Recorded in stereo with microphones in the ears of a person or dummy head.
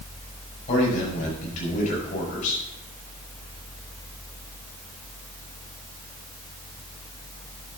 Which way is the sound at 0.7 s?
40° left (ahead or behind).